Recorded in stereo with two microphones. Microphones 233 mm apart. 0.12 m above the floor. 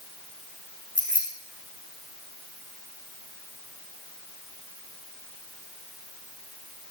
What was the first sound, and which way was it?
Keys jangling, 55° right (ahead or behind).